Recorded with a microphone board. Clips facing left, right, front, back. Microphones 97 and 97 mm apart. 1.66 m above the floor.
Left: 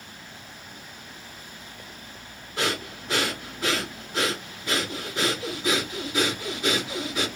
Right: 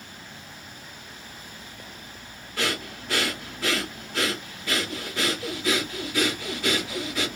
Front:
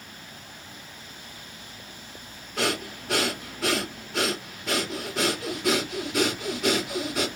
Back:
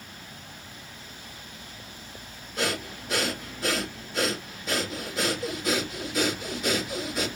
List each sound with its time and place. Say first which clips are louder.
2.6 s breathing: left 1 dB, front 2 dB; 20° left, 3.5 m